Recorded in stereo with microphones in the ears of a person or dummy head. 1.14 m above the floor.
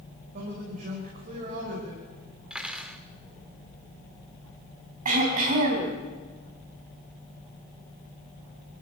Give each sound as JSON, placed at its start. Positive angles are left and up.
{"t": 0.3, "sound": "a man speaking", "side_deg": -45, "distance_m": 5.0}
{"t": 2.5, "sound": "cutlery clinking", "side_deg": -5, "distance_m": 1.7}
{"t": 5.0, "sound": "throat clearing", "side_deg": -45, "distance_m": 4.5}